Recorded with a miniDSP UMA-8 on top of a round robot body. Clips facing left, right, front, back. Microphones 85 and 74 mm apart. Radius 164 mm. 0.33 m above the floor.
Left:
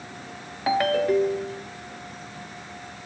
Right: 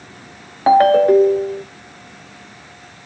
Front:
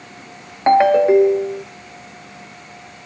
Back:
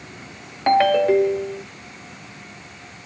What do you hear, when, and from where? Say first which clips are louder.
0.7 s a ringtone: right 11 dB, front 4 dB; 60° right, 0.6 m